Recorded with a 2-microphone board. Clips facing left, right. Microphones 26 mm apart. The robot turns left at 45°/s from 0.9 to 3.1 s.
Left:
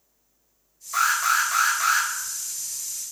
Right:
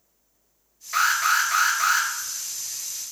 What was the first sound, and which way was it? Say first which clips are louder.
An alarm: right 1 dB; 125° right.